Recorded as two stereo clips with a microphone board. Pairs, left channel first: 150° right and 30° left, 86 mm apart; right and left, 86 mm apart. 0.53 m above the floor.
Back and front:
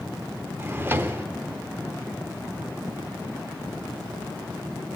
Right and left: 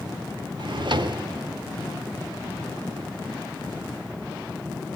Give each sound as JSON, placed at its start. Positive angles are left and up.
{"t": 0.6, "sound": "a drawer", "azimuth_deg": 90, "distance_m": 0.6}